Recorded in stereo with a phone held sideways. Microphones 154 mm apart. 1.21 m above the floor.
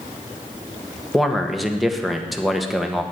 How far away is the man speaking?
About 1.2 m.